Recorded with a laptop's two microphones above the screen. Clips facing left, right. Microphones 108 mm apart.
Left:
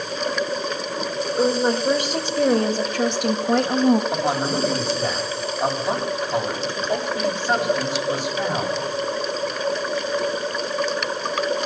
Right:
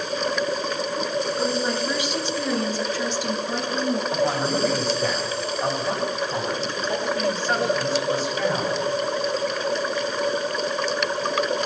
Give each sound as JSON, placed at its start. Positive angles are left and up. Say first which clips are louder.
{"t": 1.4, "sound": "a woman speaking", "louder": "left 4 dB", "side_deg": 35, "distance_m": 3.0}
{"t": 4.1, "sound": "a man speaking", "louder": "even", "side_deg": 15, "distance_m": 7.0}